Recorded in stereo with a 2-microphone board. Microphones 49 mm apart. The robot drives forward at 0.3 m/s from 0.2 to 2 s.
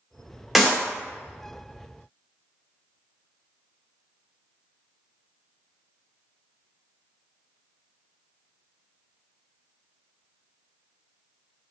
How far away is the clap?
About 0.7 m.